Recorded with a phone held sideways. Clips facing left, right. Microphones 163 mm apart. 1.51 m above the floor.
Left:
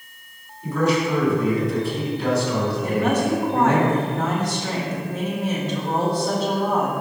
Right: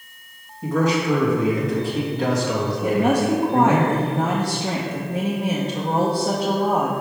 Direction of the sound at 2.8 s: 25° right (ahead or behind).